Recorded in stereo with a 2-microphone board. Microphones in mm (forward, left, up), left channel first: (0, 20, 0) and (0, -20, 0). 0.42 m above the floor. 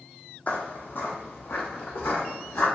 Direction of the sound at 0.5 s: 40° left (ahead or behind).